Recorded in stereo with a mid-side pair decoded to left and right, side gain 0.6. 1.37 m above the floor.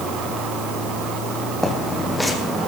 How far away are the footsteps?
About 5 m.